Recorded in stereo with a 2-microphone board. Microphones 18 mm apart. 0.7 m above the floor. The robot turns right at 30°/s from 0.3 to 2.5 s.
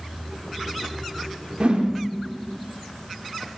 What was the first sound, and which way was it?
A whoosh, 60° right (ahead or behind).